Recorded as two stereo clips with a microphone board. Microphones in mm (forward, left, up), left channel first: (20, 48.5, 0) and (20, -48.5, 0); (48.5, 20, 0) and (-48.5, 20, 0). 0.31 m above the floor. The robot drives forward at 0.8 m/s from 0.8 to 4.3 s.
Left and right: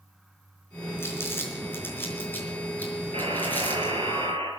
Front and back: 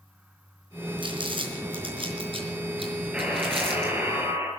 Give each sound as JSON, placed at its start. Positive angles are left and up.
{"t": 1.0, "sound": "crumpling", "azimuth_deg": 155, "distance_m": 4.0}
{"t": 3.1, "sound": "a buzzer", "azimuth_deg": -100, "distance_m": 4.0}